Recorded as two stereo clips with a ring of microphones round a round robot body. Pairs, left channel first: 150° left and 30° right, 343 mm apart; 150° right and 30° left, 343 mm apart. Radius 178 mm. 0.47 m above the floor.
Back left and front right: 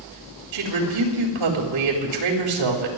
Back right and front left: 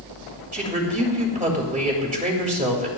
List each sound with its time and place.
0.5 s a woman speaking: 35° right, 3.5 m